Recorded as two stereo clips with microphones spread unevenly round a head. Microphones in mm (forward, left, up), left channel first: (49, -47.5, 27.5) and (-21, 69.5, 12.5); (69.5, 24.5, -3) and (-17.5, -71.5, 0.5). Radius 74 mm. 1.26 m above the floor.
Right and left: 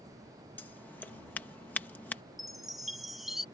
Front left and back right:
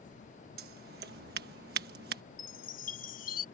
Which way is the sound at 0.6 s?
140° right.